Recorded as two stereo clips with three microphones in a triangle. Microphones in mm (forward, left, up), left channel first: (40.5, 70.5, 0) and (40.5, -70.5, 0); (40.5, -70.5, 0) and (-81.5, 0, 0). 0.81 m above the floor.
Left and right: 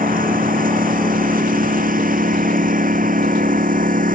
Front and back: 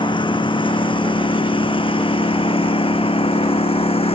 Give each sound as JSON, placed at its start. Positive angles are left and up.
{"t": 0.0, "sound": "a lawn mower", "azimuth_deg": -85}